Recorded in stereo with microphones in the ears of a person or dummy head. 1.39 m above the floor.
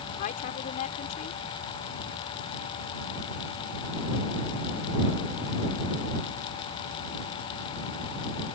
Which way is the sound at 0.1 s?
50° left (ahead or behind).